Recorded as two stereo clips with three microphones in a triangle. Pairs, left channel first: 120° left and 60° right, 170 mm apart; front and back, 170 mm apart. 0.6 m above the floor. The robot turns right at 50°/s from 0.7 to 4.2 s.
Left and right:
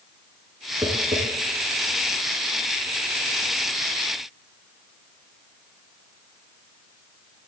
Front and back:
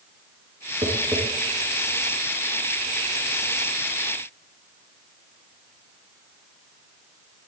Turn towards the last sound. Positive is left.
turn(degrees=40)